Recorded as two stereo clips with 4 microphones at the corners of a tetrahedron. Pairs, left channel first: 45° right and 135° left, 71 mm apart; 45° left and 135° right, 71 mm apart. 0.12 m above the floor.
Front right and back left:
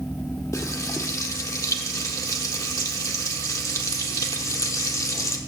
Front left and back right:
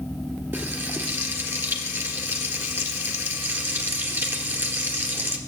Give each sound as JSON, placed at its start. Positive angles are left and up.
{"t": 0.5, "sound": "frying", "azimuth_deg": -80, "distance_m": 2.0}